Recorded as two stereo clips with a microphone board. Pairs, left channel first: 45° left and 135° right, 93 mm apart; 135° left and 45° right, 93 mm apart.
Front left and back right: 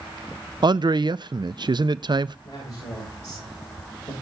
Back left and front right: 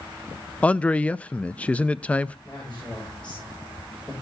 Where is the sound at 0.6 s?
150° right, 0.5 m.